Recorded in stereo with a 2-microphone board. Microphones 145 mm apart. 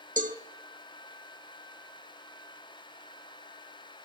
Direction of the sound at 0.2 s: 65° right (ahead or behind).